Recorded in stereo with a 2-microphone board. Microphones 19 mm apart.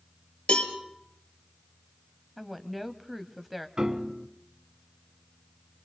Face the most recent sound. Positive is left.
turn(degrees=-40)  # may be behind; listen again after turning